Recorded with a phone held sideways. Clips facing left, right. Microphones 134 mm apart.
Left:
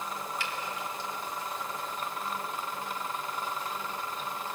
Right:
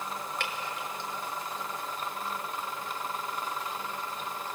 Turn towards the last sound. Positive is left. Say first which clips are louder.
# even
turn(degrees=-60)  # may be behind; listen again after turning